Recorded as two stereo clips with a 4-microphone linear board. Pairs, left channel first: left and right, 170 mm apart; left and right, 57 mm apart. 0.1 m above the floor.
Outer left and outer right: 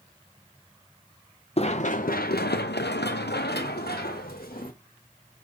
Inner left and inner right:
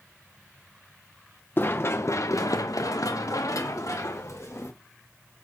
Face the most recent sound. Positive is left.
turn(degrees=55)  # may be behind; listen again after turning